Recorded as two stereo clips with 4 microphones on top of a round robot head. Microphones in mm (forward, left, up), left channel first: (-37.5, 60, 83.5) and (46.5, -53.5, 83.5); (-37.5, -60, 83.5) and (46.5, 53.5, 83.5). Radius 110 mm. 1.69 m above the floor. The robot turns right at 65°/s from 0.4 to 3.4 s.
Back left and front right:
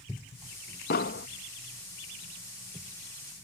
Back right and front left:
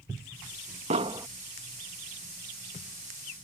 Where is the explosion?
100° left; by 1.3 s 125° left.